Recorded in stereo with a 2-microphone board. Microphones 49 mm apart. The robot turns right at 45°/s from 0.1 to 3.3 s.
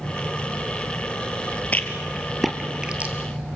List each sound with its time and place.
1.7 s a rattle: 30° left (ahead or behind), 1.9 m; by 3.1 s 30° right (ahead or behind), 1.9 m